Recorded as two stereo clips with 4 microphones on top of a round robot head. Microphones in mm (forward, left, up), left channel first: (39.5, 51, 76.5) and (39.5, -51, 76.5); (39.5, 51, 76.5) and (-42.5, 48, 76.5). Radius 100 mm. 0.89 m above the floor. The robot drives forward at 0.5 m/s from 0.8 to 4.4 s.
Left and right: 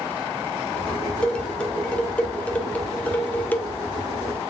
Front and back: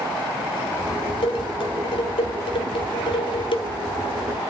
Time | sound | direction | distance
1.2 | dishes clattering | 10° left | 3 m